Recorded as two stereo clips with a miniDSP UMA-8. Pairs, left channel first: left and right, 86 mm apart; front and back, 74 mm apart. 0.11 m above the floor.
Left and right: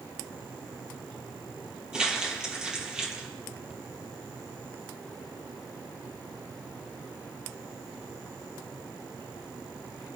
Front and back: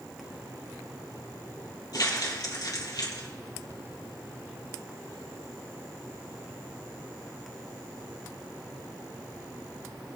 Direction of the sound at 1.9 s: 10° right.